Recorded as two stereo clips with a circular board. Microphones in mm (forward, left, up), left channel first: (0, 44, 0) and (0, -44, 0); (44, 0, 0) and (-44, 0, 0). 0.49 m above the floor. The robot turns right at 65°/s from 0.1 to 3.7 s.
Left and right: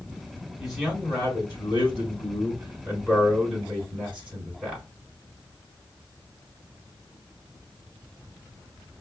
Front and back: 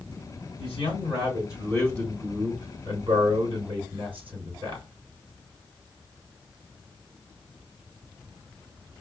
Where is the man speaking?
10° right, 3.5 m; by 4.8 s 165° right, 3.5 m.